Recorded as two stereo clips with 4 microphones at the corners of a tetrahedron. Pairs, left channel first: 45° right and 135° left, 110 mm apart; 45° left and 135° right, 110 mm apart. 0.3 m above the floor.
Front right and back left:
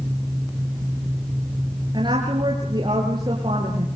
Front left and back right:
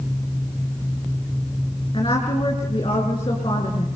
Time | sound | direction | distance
1.9 | a woman speaking | 85° left | 4 m